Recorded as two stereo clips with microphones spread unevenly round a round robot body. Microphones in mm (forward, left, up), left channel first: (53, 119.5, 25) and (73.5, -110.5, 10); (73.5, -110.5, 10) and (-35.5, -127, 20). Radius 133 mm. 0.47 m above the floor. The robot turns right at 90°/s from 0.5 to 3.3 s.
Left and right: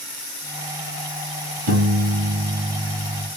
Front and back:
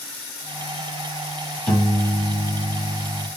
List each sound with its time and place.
1.7 s a piano: 80° right, 2.5 m; by 3.3 s 65° left, 2.5 m